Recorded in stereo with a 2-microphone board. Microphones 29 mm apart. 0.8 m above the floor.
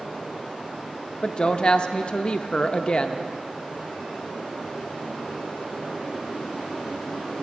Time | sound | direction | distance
1.2 | a woman speaking | 35° left (ahead or behind) | 0.5 m